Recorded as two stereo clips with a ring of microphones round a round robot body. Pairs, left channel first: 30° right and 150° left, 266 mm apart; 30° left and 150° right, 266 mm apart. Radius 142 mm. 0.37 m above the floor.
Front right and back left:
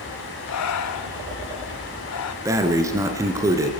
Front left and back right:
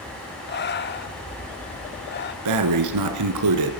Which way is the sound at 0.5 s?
20° right.